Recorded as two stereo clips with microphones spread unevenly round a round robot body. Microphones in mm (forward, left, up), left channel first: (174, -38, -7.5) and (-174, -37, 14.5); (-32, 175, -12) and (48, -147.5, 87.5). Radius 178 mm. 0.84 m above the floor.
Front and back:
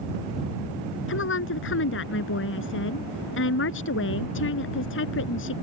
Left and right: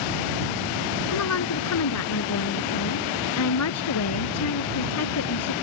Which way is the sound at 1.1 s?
60° left.